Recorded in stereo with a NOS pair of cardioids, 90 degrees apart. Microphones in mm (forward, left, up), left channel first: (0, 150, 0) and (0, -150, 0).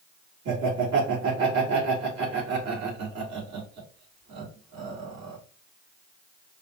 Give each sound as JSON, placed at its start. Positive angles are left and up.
{"t": 0.5, "sound": "laughter", "azimuth_deg": -65, "distance_m": 2.5}